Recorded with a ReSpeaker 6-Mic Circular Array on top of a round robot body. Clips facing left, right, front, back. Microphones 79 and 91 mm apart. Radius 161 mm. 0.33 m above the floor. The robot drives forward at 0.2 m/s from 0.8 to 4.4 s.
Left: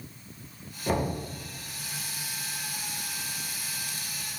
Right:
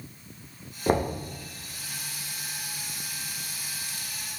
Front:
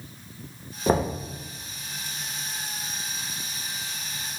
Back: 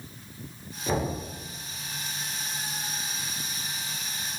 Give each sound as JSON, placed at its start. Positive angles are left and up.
{"t": 0.9, "sound": "knocking", "azimuth_deg": -40, "distance_m": 1.2}